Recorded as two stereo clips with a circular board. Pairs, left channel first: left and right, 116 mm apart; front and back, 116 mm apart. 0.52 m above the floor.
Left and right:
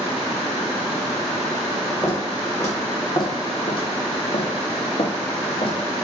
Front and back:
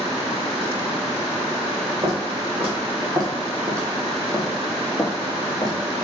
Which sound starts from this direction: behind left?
Footsteps, at 2.0 s.